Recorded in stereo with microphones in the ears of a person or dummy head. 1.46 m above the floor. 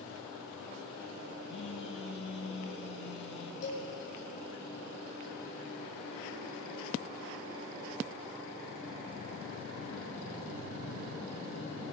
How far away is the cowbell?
About 1.5 m.